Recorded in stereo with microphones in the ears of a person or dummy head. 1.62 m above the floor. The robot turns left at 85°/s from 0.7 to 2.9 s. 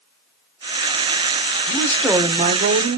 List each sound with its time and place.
1.7 s a woman speaking: 35° left, 1.0 m; by 3.0 s 70° right, 1.0 m